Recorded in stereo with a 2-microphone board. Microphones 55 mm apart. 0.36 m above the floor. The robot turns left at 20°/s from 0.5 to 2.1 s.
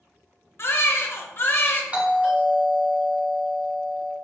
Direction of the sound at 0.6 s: 50° left (ahead or behind).